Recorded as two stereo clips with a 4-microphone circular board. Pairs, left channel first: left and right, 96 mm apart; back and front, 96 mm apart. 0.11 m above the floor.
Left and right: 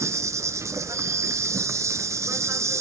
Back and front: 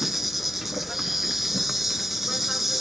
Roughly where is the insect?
Right.